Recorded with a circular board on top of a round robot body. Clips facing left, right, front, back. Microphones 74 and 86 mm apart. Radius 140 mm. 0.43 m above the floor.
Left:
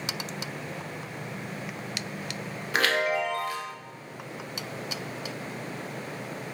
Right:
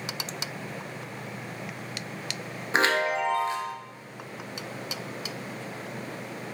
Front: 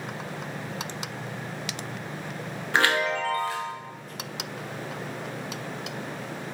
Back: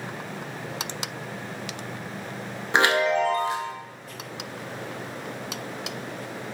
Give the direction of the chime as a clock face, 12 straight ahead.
4 o'clock.